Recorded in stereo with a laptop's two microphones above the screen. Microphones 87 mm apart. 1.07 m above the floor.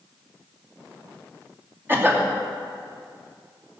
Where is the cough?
25° right (ahead or behind), 2.5 m.